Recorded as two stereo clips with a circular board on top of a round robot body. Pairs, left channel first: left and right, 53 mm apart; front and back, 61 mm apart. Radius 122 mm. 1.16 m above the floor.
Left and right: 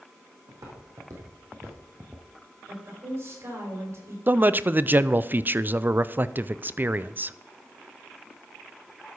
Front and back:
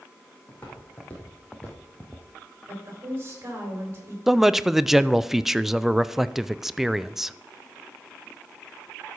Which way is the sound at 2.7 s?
125° right.